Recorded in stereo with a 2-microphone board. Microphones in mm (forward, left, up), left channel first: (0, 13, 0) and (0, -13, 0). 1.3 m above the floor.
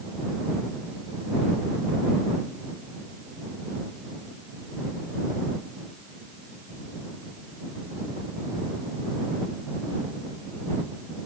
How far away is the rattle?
No rattle in this recording.